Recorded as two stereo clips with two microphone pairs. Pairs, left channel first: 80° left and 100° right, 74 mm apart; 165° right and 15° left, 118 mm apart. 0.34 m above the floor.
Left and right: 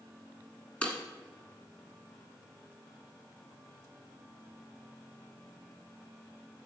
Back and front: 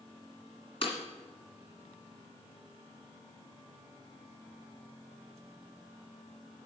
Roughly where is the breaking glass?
Behind left.